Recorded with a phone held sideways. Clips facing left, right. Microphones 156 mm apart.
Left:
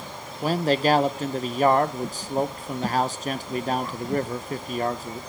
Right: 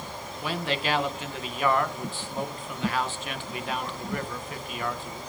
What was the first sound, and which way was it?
A man speaking, 40° left (ahead or behind).